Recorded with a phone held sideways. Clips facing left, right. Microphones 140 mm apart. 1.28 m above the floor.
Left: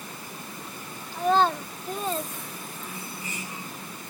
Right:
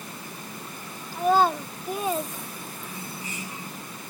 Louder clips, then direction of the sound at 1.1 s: Right 1 dB; 10° right (ahead or behind).